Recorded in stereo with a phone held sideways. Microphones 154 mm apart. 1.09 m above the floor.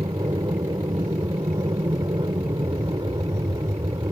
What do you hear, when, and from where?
0.0 s an aircraft: 25° right (ahead or behind)